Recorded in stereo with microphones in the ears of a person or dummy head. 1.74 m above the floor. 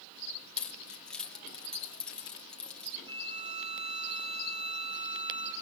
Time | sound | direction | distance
0.6 | keys jangling | centre (ahead or behind) | 2.5 m
3.1 | a violin | 35° right (ahead or behind) | 6 m